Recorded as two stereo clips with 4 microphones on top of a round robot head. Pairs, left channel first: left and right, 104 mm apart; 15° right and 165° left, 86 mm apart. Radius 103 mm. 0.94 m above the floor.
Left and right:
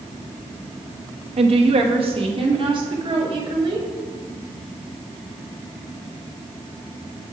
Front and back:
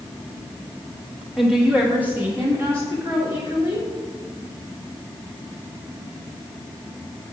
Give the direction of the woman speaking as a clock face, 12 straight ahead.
3 o'clock.